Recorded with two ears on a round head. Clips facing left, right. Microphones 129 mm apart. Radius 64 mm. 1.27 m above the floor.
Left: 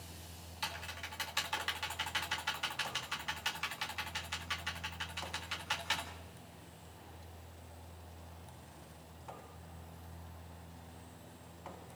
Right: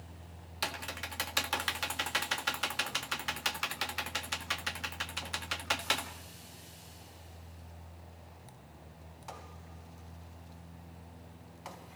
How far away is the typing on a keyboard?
About 1.7 m.